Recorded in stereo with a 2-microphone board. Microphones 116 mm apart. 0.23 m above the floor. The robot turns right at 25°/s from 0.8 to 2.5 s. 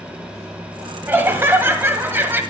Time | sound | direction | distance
1.1 | laughter | 20° right (ahead or behind) | 1.3 m